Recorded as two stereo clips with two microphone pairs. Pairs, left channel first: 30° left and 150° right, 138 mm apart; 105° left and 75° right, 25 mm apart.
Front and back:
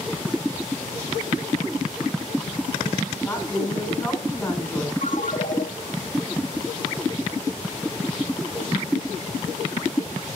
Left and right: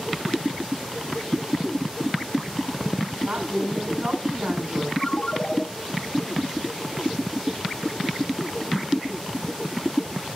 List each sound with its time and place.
3.2 s a woman speaking: 50° right, 7 m
5.0 s a ringtone: 45° left, 2.5 m